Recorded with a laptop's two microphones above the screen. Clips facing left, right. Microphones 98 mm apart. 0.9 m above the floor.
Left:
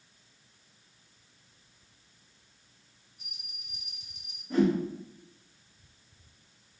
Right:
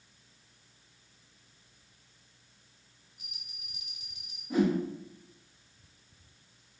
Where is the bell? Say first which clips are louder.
Left 1 dB; 30° left (ahead or behind), 0.8 m.